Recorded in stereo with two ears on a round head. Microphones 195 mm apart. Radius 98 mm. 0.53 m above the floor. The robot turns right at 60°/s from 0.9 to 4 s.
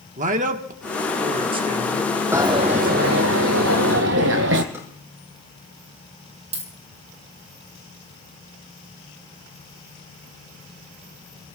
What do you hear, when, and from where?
0.2 s a man speaking: 80° right, 1.0 m; by 2.1 s 10° right, 1.0 m
2.3 s a dropped coin: 165° right, 1.5 m; by 4.6 s 65° right, 1.5 m
4.7 s a drawer: 15° right (ahead or behind), 4.5 m
6.5 s a dropped coin: 30° right (ahead or behind), 2 m